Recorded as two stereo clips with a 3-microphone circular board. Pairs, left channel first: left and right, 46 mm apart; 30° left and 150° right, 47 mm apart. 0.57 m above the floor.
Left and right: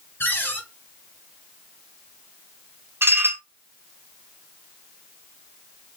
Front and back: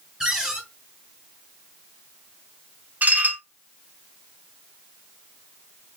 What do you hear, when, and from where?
0.2 s a cupboard door: 135° left, 1.7 m
3.0 s dishes clattering: 100° right, 0.8 m